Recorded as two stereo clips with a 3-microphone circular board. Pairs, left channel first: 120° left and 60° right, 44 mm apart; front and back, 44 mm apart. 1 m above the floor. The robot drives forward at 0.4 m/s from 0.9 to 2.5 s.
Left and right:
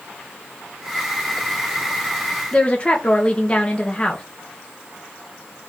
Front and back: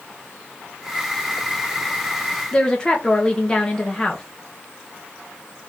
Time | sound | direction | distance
2.5 | a woman speaking | 65° left | 0.6 m